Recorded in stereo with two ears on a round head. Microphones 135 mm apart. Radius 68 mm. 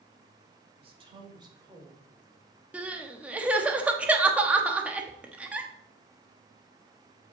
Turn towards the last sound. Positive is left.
turn(degrees=-10)  # may be behind; listen again after turning